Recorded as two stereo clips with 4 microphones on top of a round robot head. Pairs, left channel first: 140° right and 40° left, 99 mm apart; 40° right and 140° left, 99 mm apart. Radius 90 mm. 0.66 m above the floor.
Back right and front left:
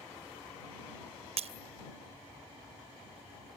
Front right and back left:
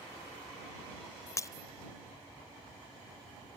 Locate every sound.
1.4 s breaking glass: 20° left